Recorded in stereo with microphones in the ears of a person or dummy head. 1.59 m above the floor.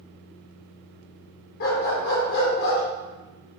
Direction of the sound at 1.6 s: 55° left (ahead or behind).